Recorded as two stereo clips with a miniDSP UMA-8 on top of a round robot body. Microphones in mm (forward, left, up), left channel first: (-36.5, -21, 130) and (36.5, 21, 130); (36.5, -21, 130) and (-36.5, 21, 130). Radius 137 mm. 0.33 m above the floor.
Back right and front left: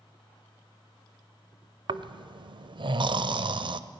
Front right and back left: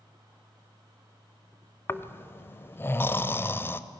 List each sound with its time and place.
1.9 s snoring: 30° left, 0.7 m